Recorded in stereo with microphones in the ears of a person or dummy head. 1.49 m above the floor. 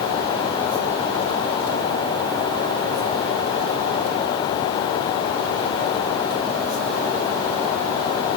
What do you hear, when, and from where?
Only background noise.